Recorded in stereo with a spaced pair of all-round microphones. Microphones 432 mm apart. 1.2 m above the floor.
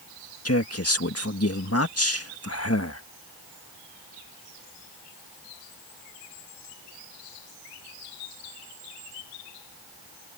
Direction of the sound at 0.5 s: 35° left (ahead or behind).